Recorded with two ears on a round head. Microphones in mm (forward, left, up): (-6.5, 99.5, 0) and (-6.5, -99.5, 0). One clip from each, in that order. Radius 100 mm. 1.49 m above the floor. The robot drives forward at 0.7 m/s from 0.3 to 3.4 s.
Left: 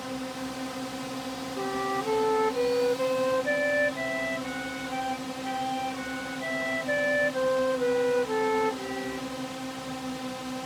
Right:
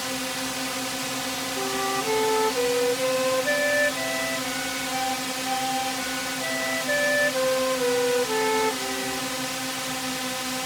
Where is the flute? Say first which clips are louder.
Right 2 dB; 20° right (ahead or behind); by 9.3 s 15° right (ahead or behind).